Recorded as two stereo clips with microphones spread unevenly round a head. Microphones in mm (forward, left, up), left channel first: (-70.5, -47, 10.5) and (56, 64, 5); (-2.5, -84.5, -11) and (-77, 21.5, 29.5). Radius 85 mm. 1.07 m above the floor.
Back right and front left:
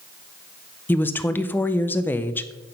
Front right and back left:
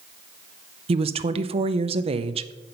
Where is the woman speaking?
150° left, 0.6 m.